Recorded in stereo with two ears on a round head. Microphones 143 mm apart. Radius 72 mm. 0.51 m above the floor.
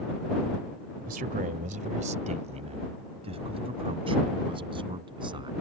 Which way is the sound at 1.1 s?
55° right (ahead or behind).